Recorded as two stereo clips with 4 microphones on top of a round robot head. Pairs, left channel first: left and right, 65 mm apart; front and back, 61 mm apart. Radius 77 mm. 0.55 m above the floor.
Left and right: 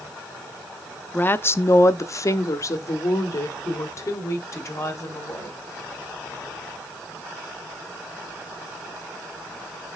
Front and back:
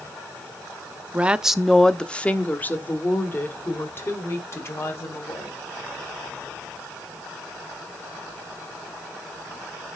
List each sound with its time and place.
1.1 s a woman speaking: 130° left, 0.7 m; by 5.6 s 45° left, 3 m